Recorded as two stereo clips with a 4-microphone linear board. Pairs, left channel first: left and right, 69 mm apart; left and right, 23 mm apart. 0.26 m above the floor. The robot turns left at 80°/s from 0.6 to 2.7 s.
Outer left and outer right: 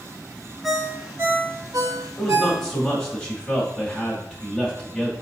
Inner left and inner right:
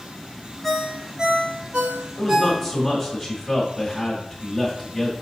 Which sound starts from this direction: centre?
A ringtone, at 0.6 s.